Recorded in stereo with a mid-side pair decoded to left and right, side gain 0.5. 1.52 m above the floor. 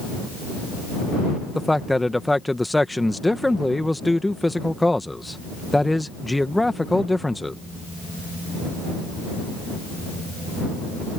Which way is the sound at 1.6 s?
10° left.